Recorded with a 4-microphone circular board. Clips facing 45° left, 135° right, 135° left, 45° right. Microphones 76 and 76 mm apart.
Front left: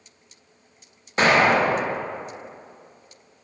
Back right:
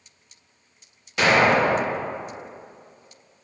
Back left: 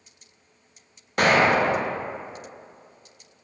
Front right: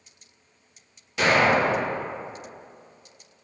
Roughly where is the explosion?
Left.